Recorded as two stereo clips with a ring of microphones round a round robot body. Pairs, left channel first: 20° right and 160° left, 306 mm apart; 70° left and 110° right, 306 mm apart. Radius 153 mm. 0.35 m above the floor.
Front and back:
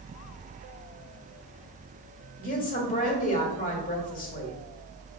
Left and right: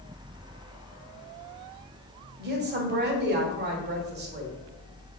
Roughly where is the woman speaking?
Right.